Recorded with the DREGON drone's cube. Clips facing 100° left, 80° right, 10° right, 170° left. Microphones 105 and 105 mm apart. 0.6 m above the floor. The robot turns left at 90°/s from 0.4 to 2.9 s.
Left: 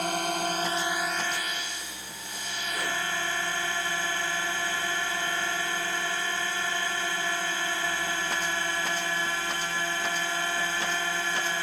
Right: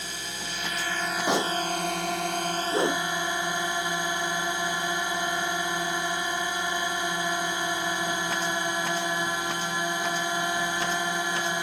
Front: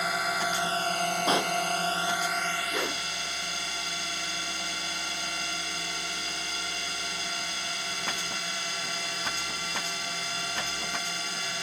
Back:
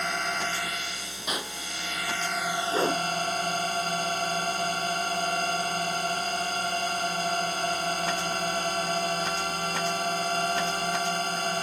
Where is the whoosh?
115° right; by 3.0 s 130° right.